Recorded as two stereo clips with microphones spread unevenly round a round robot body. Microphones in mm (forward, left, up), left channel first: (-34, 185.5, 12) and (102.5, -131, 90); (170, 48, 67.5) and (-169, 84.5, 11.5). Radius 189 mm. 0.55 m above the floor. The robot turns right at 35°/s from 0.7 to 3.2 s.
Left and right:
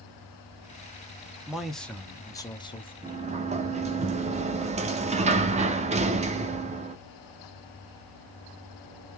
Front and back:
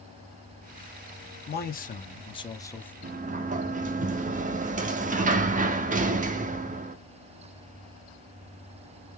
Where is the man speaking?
40° left, 0.8 m; by 2.9 s 90° left, 0.8 m.